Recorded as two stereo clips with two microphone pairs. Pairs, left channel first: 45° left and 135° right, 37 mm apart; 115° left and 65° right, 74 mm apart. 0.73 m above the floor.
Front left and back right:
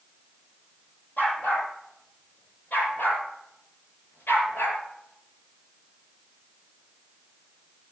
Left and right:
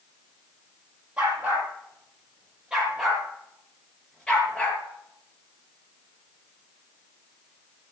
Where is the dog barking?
5° left, 6.5 m; by 4.8 s 40° left, 4 m.